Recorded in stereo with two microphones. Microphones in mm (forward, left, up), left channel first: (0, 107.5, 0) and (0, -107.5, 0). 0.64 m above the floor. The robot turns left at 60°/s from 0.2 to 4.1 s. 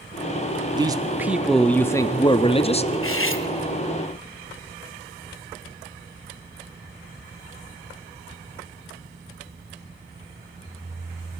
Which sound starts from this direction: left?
Cutlery clinking, at 2.9 s.